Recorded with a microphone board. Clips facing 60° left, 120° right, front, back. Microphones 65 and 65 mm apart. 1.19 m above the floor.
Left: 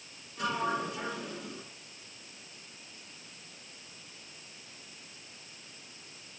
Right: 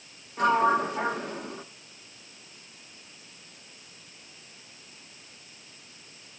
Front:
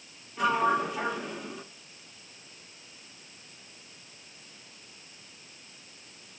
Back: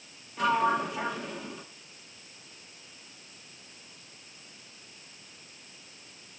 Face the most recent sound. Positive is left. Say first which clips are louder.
# right 10 dB, even
turn(degrees=-90)